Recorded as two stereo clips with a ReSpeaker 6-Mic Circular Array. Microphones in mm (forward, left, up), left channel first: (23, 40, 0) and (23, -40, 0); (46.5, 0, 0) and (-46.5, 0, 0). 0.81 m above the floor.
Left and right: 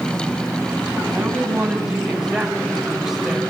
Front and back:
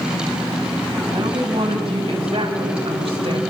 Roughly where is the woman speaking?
Behind.